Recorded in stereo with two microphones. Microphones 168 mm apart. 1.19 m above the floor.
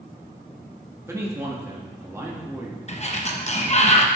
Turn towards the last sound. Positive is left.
turn(degrees=40)  # may be behind; listen again after turning